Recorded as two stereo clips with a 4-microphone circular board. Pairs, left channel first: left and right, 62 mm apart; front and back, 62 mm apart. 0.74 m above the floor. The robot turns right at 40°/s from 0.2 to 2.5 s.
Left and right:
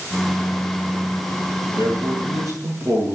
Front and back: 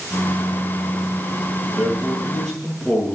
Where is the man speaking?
115° right, 7.5 m; by 3.1 s 80° right, 7.5 m.